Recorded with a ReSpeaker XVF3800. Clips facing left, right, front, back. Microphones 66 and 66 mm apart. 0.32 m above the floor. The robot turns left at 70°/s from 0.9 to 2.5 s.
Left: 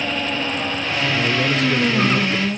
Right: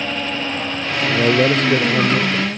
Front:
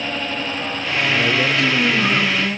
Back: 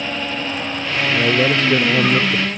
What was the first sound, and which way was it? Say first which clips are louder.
A man speaking: right 7 dB, back 3 dB; 95° right.